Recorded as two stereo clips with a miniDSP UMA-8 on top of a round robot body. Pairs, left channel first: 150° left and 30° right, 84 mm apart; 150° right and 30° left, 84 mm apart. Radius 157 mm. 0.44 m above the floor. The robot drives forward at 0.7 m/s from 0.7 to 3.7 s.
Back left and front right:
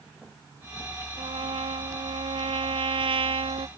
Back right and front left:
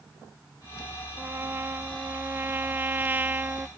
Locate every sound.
1.2 s a trumpet: 35° right; by 3.7 s 45° right